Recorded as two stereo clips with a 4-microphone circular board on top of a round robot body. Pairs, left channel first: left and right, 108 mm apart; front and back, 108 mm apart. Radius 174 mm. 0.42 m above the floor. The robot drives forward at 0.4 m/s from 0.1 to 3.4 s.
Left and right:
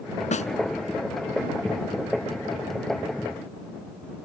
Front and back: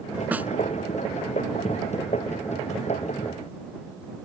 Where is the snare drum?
105° left.